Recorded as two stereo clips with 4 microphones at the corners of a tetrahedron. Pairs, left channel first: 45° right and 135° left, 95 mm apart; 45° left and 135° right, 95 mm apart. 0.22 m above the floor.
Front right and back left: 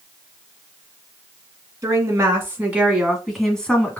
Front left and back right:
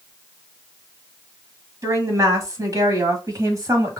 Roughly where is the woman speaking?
Behind.